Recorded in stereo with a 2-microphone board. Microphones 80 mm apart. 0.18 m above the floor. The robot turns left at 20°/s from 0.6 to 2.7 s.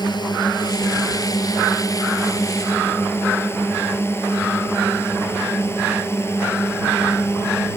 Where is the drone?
60° left (ahead or behind); by 7.8 s 30° left (ahead or behind).